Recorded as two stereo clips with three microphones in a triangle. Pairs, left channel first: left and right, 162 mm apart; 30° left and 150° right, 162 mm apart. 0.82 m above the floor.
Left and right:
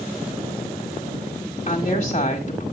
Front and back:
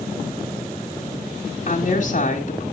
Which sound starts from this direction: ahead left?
A woman speaking, at 1.7 s.